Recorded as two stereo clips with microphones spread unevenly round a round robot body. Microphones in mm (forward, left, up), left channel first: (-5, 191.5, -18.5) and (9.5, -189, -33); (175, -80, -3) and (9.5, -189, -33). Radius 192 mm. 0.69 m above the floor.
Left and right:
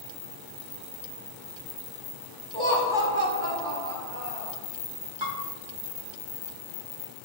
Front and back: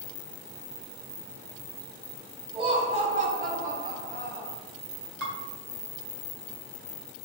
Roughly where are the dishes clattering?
Behind right.